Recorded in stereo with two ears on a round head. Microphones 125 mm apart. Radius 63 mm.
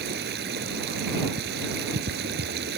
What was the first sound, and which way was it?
Running water, 85° right.